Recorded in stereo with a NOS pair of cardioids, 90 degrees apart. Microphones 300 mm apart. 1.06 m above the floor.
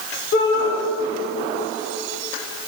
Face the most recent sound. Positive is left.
turn(degrees=55)